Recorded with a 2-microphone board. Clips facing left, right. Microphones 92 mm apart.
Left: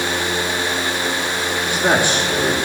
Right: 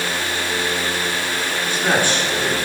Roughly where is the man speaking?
Centre.